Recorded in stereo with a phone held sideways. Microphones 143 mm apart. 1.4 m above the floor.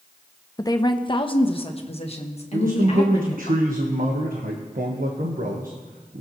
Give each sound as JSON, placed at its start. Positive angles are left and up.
{"t": 0.6, "sound": "a woman speaking", "side_deg": 25, "distance_m": 0.7}
{"t": 2.5, "sound": "a man speaking", "side_deg": -80, "distance_m": 1.3}